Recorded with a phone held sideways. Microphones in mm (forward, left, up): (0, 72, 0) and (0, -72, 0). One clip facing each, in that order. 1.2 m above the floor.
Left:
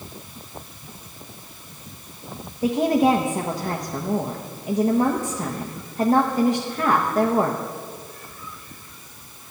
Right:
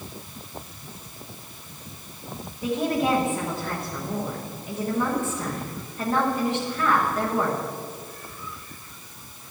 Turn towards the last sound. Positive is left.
turn(degrees=40)  # may be behind; listen again after turning